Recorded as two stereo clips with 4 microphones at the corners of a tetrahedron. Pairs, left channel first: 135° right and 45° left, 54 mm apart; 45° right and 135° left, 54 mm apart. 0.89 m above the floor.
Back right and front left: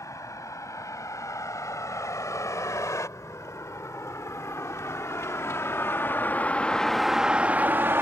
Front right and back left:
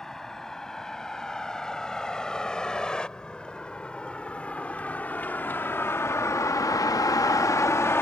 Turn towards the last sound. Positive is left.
turn(degrees=0)